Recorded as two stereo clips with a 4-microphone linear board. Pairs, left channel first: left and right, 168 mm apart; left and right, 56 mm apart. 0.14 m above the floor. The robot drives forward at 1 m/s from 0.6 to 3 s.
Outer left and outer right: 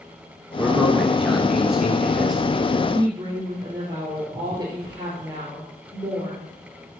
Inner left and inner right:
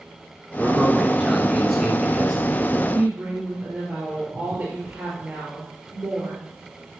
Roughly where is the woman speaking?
Right.